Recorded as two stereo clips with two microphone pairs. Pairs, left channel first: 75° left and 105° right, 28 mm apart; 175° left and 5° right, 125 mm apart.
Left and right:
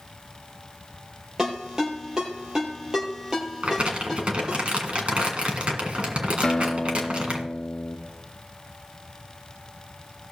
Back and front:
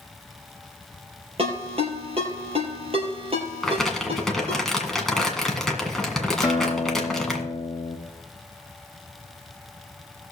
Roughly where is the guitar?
Behind left.